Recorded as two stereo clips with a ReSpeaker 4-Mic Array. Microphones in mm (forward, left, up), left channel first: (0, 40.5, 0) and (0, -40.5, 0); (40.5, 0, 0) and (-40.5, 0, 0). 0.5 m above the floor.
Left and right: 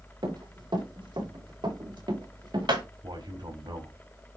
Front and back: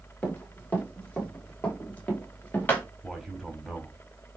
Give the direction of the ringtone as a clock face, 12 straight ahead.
No ringtone in this recording.